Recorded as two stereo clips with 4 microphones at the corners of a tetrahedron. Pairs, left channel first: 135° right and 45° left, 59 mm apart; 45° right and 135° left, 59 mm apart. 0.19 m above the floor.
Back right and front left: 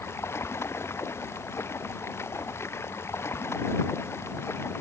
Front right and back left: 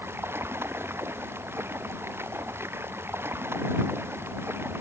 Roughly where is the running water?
Behind.